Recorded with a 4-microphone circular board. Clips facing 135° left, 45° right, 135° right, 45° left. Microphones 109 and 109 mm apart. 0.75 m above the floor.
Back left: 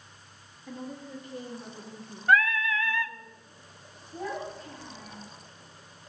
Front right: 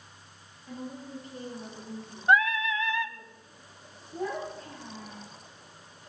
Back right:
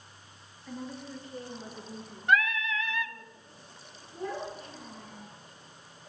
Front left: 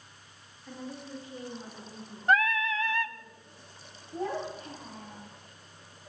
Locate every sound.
0.7 s a woman speaking: 120° left, 8 m
2.3 s singing: 15° left, 0.5 m
4.1 s a child speaking: 45° left, 4 m